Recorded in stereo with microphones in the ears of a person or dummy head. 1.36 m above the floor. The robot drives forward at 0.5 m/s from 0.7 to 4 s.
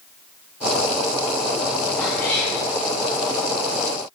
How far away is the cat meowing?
About 2 m.